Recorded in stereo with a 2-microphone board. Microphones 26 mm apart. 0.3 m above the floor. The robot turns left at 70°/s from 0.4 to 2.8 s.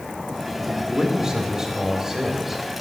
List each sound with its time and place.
0.9 s a man speaking: 20° right (ahead or behind), 1.6 m; by 2.6 s centre (ahead or behind), 1.6 m